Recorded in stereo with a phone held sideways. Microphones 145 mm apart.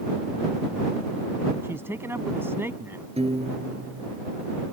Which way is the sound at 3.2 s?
45° right (ahead or behind).